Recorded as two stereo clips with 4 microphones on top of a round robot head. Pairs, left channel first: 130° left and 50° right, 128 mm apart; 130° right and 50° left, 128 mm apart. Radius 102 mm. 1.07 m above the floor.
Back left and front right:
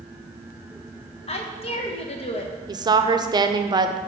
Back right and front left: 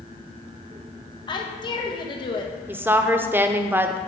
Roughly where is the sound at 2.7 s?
Ahead.